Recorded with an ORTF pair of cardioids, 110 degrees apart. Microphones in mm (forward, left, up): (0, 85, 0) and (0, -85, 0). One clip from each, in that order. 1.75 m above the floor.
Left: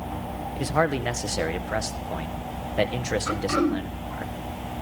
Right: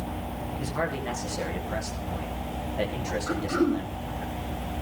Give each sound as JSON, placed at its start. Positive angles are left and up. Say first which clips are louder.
{"t": 0.6, "sound": "a man speaking", "louder": "left 7 dB", "azimuth_deg": 50, "distance_m": 1.7}
{"t": 3.3, "sound": "throat clearing", "louder": "left 1 dB", "azimuth_deg": 50, "distance_m": 4.0}